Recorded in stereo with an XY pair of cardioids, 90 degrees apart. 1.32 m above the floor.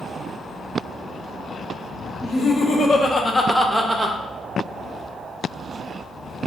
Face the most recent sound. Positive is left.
turn(degrees=-35)